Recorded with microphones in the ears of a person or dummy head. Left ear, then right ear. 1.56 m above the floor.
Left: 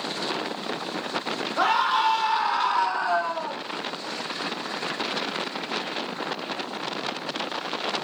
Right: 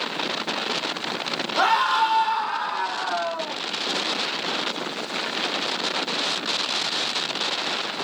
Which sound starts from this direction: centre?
A scream, at 1.6 s.